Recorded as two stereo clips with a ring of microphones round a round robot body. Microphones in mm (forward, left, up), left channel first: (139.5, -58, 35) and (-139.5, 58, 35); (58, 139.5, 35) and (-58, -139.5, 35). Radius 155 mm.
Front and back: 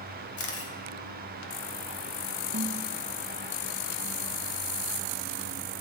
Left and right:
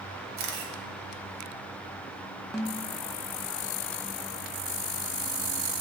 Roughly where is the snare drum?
Behind left.